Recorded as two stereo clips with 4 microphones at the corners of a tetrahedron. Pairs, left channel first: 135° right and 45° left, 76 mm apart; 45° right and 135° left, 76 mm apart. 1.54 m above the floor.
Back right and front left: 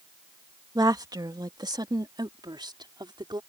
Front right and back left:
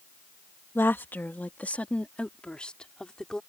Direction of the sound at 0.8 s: 15° left.